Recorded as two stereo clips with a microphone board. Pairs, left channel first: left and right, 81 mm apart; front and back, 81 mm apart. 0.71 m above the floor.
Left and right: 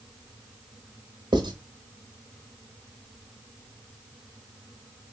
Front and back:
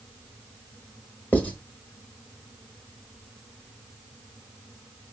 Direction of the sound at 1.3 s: 70° right.